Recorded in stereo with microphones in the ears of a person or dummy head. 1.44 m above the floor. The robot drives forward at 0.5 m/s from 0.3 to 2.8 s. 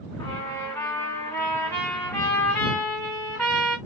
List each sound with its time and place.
0.2 s a trumpet: 15° left (ahead or behind), 1.5 m; by 3.8 s 10° left (ahead or behind), 2.5 m